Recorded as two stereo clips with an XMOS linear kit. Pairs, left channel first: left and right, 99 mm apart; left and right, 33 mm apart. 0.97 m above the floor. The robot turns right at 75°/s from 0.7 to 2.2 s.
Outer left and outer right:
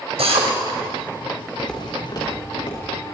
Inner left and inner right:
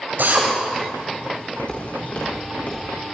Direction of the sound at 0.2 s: 85° right.